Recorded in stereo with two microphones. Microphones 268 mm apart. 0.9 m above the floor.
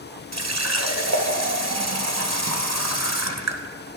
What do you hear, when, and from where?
0.3 s a running tap: 75° right (ahead or behind), 0.8 m